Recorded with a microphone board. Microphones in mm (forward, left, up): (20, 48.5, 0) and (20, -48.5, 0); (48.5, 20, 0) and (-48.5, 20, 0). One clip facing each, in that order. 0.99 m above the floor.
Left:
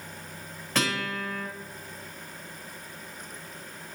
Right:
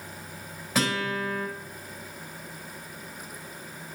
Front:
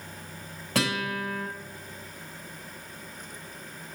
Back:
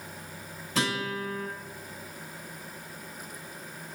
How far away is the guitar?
About 4 m.